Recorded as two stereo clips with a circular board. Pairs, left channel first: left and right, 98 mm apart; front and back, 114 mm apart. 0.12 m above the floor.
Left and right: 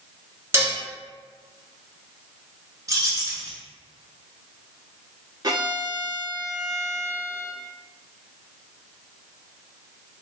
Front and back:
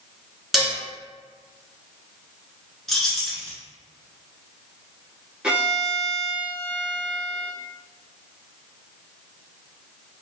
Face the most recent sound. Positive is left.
turn(degrees=-100)